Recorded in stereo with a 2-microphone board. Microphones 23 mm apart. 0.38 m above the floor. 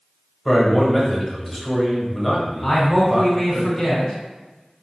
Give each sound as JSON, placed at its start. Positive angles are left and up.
{"t": 0.5, "sound": "a man speaking", "side_deg": 0, "distance_m": 1.1}
{"t": 2.6, "sound": "a man speaking", "side_deg": 20, "distance_m": 1.4}